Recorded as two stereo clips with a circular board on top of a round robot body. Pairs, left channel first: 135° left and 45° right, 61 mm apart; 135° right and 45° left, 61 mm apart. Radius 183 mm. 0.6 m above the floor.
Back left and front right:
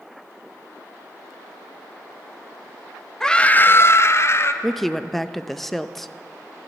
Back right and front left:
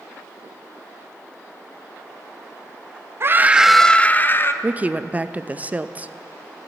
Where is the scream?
55° left, 0.8 m; by 4.5 s straight behind, 1.2 m.